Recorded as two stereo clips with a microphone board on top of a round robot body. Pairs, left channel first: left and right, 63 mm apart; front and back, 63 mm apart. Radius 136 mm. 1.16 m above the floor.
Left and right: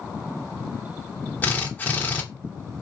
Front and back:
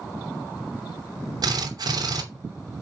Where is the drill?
155° left, 3 m.